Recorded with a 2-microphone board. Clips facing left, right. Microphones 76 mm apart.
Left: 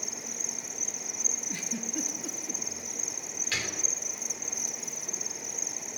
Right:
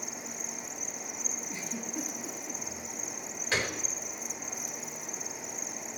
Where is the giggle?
60° left (ahead or behind), 5.5 m.